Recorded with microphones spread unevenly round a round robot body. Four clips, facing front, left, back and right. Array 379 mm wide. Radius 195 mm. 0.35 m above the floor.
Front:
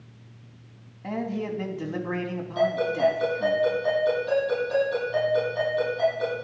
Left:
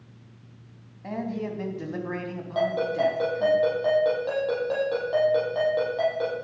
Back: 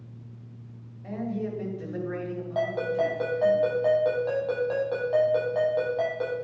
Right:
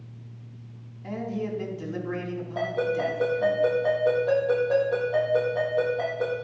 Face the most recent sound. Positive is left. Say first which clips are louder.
# left 2 dB, front 3 dB
turn(degrees=125)